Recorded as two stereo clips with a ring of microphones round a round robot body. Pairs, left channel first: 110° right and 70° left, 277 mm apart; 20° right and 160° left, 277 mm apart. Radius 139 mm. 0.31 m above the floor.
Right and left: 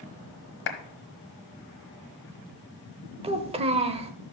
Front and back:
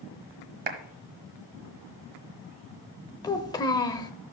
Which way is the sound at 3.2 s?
35° left.